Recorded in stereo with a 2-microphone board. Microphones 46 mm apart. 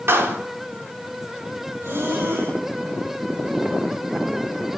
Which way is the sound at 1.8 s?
70° right (ahead or behind).